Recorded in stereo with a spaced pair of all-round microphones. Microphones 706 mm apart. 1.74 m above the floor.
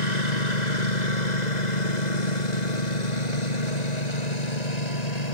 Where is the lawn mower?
75° left (ahead or behind); by 5.3 s 65° left (ahead or behind).